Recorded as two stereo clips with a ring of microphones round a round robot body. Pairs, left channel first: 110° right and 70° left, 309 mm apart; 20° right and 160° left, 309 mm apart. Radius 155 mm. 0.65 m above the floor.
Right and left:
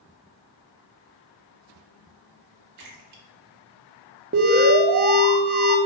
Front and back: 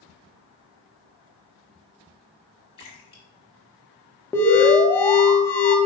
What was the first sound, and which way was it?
A splash, 50° left.